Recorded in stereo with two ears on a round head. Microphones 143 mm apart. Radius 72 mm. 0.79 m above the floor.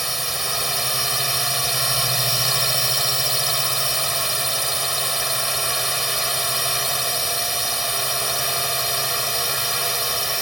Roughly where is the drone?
Centre.